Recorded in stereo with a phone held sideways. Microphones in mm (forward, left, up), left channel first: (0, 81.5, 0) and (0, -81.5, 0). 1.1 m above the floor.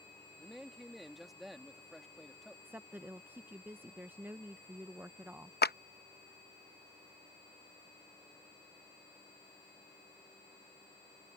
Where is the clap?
80° left.